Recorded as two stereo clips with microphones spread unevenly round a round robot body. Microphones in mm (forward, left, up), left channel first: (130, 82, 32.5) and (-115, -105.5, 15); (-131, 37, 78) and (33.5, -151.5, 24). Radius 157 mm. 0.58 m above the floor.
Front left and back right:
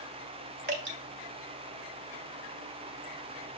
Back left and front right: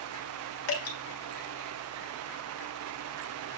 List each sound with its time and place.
0.7 s dripping: 165° left, 1.8 m